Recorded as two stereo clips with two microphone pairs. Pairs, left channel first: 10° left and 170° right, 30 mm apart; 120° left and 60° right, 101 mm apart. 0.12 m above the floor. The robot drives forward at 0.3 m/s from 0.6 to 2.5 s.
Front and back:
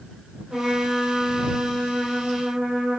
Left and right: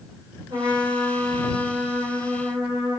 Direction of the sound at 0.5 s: 105° right.